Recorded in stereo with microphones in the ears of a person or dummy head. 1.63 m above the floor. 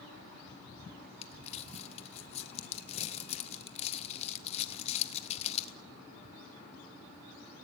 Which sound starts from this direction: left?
Crumpling, at 1.2 s.